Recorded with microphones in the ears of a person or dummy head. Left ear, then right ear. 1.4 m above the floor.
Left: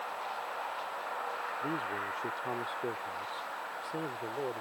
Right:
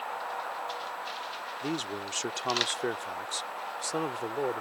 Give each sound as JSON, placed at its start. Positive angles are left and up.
{"t": 1.6, "sound": "a man speaking", "side_deg": -85}